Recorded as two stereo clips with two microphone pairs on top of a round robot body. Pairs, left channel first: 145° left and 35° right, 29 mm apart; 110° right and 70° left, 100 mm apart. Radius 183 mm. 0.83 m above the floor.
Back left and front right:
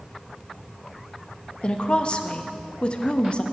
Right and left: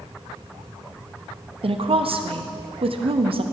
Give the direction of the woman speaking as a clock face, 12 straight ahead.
9 o'clock.